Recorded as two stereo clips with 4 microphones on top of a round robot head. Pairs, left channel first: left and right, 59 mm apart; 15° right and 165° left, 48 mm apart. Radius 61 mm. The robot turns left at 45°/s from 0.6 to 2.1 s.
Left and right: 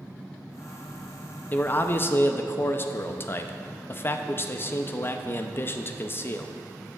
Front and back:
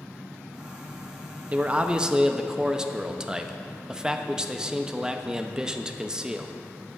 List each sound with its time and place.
1.5 s a man speaking: 130° left, 0.6 m; by 6.5 s 100° left, 0.6 m